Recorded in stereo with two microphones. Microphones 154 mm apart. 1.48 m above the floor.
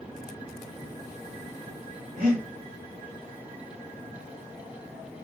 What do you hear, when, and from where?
2.2 s breathing: 70° right (ahead or behind), 1.7 m